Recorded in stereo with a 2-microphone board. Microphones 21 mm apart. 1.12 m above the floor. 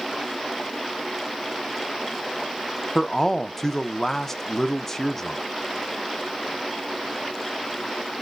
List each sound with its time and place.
3.0 s a man speaking: 15° left (ahead or behind), 0.5 m